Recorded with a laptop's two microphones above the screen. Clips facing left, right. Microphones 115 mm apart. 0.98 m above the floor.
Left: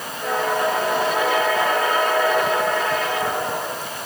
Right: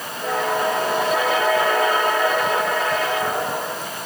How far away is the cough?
I don't hear a cough.